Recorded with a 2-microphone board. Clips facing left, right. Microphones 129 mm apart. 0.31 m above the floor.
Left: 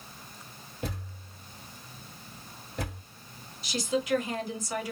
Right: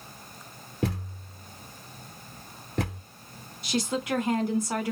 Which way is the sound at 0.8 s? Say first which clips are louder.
Right 7 dB; 80° right.